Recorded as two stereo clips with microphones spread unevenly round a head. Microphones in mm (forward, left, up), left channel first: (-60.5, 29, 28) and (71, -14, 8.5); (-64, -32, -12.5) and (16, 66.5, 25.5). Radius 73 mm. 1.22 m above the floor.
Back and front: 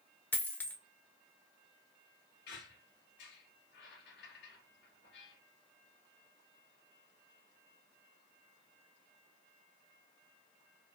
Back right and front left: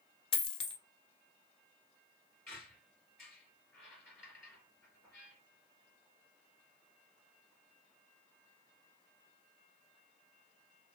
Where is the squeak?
155° left, 2.5 m.